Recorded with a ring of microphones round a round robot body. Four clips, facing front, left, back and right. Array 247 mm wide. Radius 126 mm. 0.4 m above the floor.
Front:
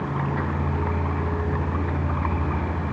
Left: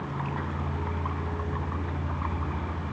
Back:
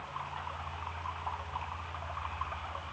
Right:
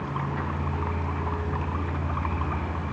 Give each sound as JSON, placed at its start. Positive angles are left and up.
{"t": 0.0, "sound": "a vehicle", "azimuth_deg": -5}